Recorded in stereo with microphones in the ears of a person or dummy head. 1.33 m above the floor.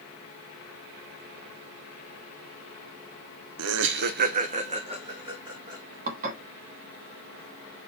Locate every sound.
3.6 s laughter: 80° right, 0.5 m; by 6.0 s 15° right (ahead or behind), 1.7 m
6.1 s dishes clattering: 50° right (ahead or behind), 1.5 m